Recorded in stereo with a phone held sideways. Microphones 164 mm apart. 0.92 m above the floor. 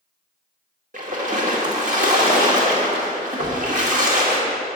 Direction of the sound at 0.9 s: 50° right (ahead or behind).